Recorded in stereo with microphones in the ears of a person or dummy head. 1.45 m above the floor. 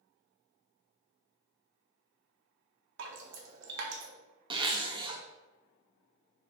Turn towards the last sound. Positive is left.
turn(degrees=-20)  # may be behind; listen again after turning